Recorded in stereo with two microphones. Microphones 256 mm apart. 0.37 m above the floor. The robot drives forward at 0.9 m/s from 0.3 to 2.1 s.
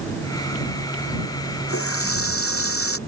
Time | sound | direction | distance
1.7 | a running tap | 60° left (ahead or behind) | ?